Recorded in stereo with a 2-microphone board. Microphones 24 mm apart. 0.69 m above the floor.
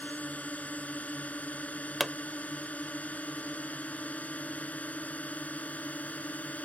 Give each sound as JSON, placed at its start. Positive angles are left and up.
{"t": 0.0, "sound": "a drone", "side_deg": 80}
{"t": 2.0, "sound": "a pop", "side_deg": -5}